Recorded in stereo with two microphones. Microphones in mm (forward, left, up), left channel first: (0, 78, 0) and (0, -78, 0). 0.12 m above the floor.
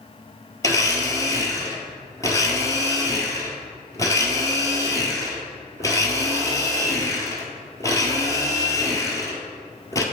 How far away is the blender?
About 1.3 m.